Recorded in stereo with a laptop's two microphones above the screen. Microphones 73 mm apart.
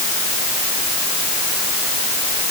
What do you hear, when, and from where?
Only background noise.